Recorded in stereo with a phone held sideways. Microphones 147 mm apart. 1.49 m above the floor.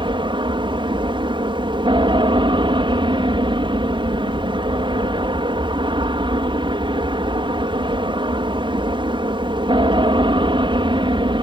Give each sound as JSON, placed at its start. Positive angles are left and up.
{"t": 0.0, "sound": "an aircraft", "side_deg": -35}